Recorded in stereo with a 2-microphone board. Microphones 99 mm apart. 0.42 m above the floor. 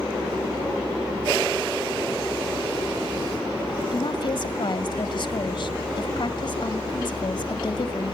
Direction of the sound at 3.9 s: 55° left (ahead or behind).